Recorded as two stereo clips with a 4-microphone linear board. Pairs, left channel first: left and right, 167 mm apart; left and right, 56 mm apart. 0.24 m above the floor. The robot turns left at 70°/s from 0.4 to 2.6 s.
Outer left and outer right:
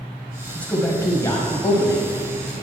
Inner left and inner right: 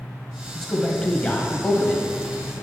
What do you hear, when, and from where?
0.6 s a man speaking: 10° left (ahead or behind), 1.4 m; by 2.0 s 20° left (ahead or behind), 1.4 m